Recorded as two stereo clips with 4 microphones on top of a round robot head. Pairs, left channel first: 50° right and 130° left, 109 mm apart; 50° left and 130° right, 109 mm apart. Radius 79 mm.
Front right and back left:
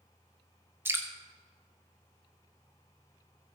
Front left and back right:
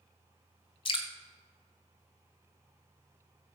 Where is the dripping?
65° left, 1.9 m.